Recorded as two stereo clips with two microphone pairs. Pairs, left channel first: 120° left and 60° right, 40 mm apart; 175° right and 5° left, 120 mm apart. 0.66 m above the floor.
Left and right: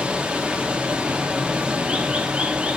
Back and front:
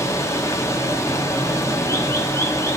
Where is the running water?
120° right, 1.0 m.